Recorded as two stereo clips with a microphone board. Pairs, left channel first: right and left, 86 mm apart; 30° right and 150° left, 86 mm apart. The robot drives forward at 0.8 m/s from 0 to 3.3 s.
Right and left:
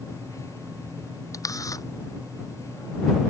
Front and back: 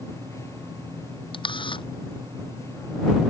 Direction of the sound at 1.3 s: 40° right.